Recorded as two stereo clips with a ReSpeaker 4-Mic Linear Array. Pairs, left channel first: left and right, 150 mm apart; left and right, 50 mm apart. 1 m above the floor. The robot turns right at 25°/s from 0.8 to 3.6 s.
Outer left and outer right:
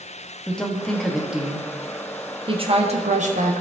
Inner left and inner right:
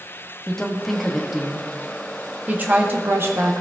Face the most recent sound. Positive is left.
turn(degrees=-115)